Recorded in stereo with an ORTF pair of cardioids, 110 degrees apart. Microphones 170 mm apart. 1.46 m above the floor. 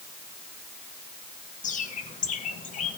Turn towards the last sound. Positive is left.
turn(degrees=45)